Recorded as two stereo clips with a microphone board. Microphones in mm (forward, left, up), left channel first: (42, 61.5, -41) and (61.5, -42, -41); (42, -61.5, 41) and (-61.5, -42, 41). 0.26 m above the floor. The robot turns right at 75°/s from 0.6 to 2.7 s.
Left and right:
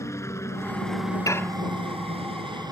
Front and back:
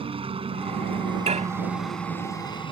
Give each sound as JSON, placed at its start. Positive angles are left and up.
{"t": 0.0, "sound": "a helicopter", "azimuth_deg": 160}
{"t": 1.3, "sound": "dishes clattering", "azimuth_deg": 160}